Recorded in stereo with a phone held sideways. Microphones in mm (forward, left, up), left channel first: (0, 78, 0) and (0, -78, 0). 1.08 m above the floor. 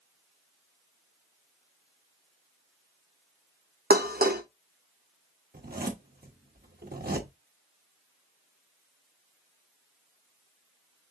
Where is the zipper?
75° right (ahead or behind), 1.1 m.